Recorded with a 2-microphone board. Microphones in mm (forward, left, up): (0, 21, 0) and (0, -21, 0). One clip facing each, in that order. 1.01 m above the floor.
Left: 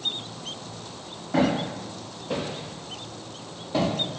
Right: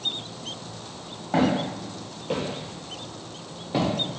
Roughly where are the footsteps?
Right.